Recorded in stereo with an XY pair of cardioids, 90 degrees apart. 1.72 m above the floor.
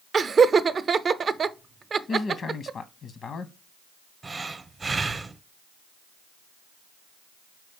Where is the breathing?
35° right, 0.9 m.